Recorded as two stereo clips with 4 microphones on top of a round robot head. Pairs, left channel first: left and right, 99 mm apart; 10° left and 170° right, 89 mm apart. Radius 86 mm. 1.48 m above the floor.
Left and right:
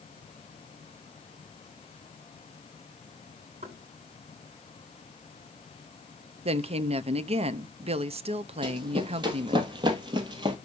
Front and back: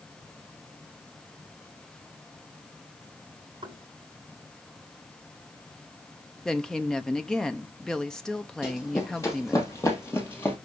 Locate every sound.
3.6 s knocking: 115° right, 6 m
6.5 s a woman speaking: 75° right, 0.8 m
8.6 s running footsteps: 55° right, 2.5 m; by 10.6 s 65° right, 1.9 m